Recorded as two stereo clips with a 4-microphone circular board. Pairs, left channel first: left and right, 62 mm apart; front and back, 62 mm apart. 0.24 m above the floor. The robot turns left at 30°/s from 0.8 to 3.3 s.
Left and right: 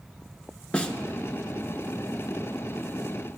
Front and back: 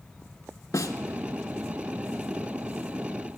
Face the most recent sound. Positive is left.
turn(degrees=-55)